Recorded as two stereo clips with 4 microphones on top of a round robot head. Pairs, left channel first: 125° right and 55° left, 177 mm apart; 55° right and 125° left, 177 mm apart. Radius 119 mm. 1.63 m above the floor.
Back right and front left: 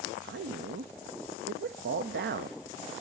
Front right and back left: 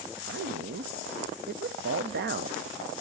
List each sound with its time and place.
0.2 s a man speaking: 90° left, 0.6 m